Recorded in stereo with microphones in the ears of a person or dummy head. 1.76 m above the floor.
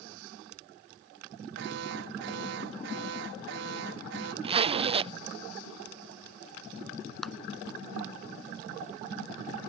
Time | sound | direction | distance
1.6 | an alarm | 75° right (ahead or behind) | ?
4.4 | a zipper | 30° right (ahead or behind) | ?
7.2 | a clap | centre (ahead or behind) | ?